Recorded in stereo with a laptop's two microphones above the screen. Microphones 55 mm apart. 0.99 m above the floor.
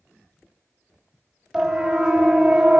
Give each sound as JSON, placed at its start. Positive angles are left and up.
{"t": 1.5, "sound": "a siren", "side_deg": -5, "distance_m": 3.0}